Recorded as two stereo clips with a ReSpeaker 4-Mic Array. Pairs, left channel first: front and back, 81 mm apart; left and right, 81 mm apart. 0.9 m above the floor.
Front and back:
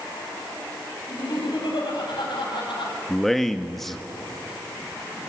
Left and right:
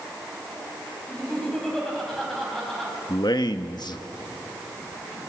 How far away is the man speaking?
About 1.3 m.